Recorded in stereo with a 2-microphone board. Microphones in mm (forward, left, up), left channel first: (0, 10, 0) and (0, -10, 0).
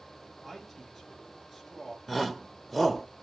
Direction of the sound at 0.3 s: Centre (ahead or behind).